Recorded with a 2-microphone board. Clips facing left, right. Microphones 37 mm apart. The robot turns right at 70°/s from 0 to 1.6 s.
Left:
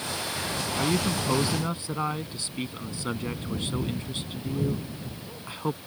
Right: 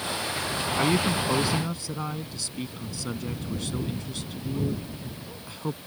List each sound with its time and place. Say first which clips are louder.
0.8 s a man speaking: right 3 dB; 30° right; by 5.8 s 30° left